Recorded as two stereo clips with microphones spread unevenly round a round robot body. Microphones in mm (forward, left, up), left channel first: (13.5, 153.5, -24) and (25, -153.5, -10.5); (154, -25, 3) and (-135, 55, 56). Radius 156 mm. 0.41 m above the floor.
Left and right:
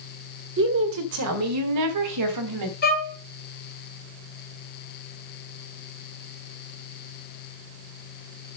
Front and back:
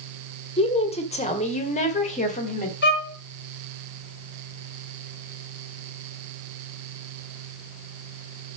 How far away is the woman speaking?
About 1.6 m.